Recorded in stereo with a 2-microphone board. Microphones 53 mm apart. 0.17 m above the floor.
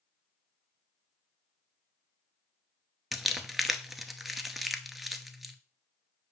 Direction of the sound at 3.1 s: 5° right (ahead or behind).